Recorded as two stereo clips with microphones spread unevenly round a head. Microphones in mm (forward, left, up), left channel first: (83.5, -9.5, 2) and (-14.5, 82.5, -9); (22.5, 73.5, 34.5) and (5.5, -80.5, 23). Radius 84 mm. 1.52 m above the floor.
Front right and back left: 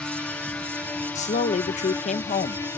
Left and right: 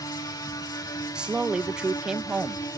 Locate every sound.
0.0 s a drone: 35° left; by 2.8 s 20° left
1.1 s a woman speaking: 10° right